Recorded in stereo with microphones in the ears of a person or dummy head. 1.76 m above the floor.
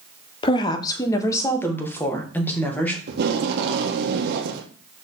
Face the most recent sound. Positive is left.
turn(degrees=-70)  # may be behind; listen again after turning